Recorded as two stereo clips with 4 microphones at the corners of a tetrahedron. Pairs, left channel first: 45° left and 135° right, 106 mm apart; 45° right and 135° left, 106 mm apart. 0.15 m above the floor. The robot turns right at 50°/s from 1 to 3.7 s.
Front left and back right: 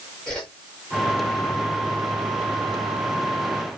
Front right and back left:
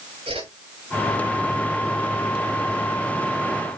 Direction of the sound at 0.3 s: 130° left.